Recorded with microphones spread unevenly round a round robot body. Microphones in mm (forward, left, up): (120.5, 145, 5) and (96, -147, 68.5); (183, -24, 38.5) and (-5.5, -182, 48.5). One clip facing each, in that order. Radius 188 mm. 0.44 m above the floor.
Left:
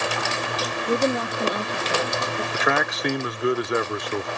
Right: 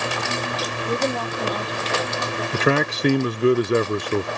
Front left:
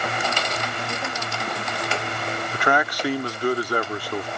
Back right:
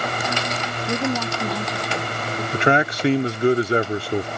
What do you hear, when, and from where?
0.9 s a woman speaking: 170° left
2.5 s a man speaking: 125° right